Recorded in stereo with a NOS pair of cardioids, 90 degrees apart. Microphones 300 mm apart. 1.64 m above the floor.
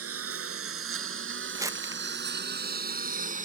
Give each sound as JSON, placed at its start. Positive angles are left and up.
{"t": 0.0, "sound": "a lawn mower", "azimuth_deg": -55}
{"t": 1.6, "sound": "crumpling", "azimuth_deg": -10}